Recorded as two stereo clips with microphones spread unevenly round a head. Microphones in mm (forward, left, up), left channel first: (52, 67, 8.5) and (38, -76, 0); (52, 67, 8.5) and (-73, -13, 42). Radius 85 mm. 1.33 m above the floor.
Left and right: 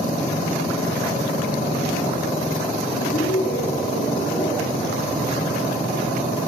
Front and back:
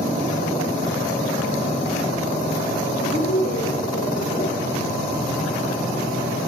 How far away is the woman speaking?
About 4.5 m.